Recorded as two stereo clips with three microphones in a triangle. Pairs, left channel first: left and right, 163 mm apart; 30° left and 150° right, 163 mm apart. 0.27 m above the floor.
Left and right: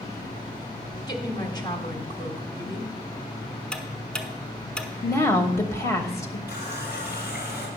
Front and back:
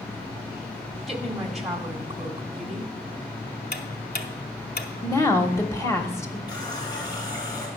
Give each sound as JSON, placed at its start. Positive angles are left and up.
{"t": 1.1, "sound": "a woman speaking", "azimuth_deg": 125, "distance_m": 1.4}
{"t": 3.7, "sound": "ticking", "azimuth_deg": 5, "distance_m": 0.8}
{"t": 5.0, "sound": "a woman speaking", "azimuth_deg": 65, "distance_m": 0.9}
{"t": 6.5, "sound": "a running tap", "azimuth_deg": 95, "distance_m": 2.0}